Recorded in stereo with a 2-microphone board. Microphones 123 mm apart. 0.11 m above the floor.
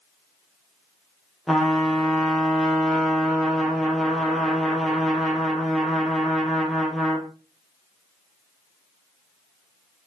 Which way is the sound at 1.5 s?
Centre (ahead or behind).